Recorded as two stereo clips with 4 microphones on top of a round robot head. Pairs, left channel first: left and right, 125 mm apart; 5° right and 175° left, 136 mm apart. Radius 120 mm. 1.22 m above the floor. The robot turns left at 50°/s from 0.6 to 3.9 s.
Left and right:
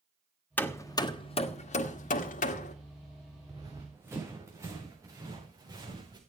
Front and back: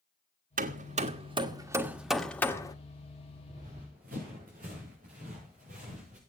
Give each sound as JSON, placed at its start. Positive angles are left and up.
{"t": 0.6, "sound": "hammering", "azimuth_deg": 165, "distance_m": 1.5}
{"t": 3.5, "sound": "running footsteps", "azimuth_deg": -140, "distance_m": 6.0}